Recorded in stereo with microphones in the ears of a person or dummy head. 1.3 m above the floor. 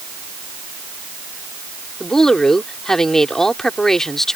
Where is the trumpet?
I don't hear a trumpet.